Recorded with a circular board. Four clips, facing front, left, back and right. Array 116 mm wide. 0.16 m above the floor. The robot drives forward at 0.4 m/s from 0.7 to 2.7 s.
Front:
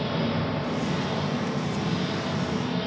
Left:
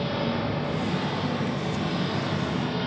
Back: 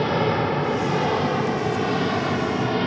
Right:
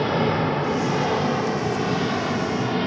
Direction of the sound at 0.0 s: 135° right.